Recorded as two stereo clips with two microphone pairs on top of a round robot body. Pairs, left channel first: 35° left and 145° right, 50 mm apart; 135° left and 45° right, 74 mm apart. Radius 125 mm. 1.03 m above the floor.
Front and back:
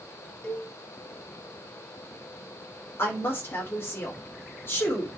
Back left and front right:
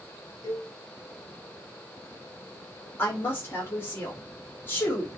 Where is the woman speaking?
70° left, 4 m.